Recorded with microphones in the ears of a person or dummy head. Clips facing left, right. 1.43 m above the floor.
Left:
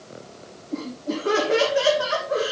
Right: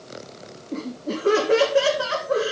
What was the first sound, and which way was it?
Laughter, 45° right (ahead or behind).